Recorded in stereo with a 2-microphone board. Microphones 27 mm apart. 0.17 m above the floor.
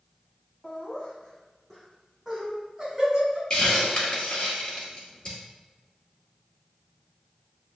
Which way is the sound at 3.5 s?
30° left (ahead or behind).